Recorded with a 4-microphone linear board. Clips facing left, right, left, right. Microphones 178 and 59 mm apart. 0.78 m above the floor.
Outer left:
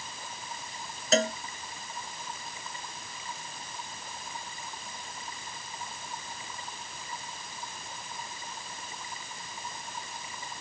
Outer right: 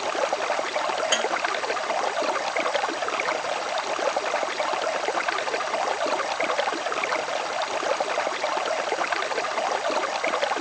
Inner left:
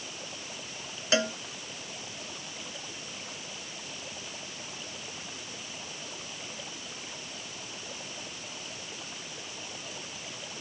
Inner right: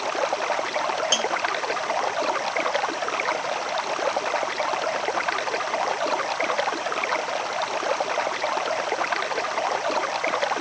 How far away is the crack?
I don't hear a crack.